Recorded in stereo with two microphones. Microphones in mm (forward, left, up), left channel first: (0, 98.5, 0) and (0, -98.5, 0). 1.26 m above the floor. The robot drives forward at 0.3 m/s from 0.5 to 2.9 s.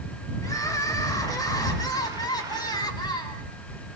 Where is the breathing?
I don't hear breathing.